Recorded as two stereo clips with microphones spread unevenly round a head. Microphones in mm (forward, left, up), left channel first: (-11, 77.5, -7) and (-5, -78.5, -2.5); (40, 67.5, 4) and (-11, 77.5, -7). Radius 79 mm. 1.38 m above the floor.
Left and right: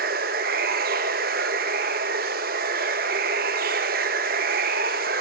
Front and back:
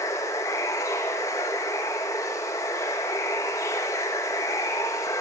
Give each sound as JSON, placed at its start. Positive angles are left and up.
{"t": 0.0, "sound": "running water", "azimuth_deg": -55, "distance_m": 1.1}